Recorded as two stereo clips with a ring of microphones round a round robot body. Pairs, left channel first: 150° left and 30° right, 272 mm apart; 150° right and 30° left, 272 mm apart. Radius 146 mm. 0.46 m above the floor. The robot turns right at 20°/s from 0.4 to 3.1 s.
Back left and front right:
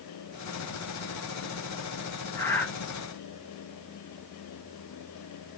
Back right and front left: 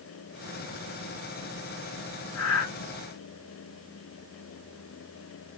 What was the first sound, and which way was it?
Breathing, 135° right.